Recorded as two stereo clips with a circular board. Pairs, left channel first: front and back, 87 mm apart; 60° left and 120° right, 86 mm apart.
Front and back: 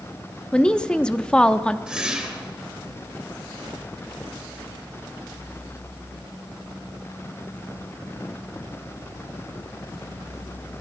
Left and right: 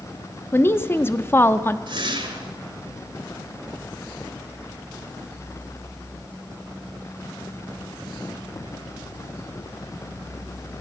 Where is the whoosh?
100° right, 2 m.